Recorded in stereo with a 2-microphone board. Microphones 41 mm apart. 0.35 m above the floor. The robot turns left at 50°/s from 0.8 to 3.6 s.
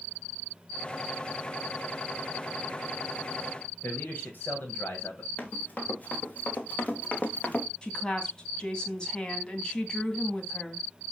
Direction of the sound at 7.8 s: 20° left (ahead or behind).